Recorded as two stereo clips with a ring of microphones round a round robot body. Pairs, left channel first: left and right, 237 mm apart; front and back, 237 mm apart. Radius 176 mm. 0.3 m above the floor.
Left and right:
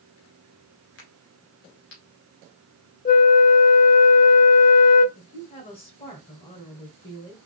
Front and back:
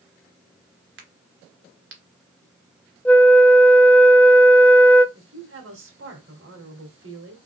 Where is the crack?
140° left, 1.7 m.